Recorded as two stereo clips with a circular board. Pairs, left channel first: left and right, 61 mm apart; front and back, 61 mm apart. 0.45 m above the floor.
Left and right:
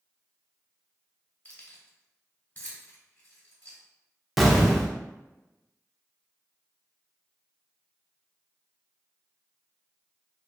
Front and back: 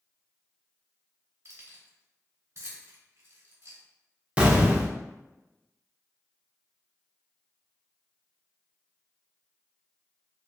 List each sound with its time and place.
1.4 s keys jangling: 145° left, 1.2 m
4.4 s an explosion: 175° right, 0.6 m